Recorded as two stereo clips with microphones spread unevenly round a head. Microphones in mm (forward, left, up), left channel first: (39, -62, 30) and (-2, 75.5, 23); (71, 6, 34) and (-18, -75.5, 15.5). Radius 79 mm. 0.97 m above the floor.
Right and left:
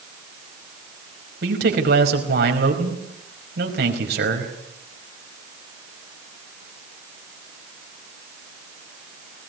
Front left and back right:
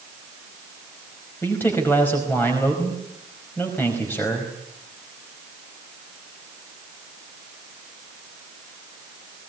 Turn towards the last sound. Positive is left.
turn(degrees=120)